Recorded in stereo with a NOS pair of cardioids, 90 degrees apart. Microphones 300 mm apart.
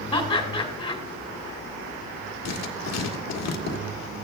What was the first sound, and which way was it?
Laughter, 10° left.